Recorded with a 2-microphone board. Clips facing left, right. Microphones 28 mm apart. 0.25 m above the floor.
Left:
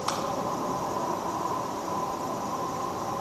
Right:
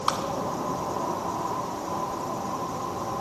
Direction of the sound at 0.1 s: 45° right (ahead or behind).